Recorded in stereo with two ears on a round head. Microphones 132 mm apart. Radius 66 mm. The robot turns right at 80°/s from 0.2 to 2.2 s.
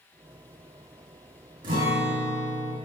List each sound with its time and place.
1.6 s a guitar: 110° right, 3 m; by 2.7 s 65° right, 3 m